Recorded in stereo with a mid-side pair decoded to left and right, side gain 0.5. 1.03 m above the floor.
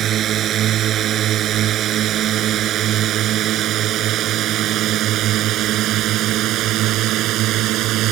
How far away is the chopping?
I don't hear chopping.